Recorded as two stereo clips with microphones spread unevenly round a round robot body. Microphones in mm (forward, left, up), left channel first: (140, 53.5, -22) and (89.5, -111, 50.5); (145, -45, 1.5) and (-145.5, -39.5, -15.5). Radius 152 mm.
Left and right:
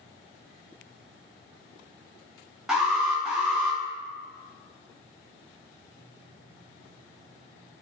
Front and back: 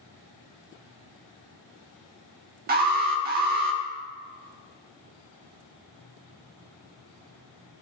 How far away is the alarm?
About 0.9 m.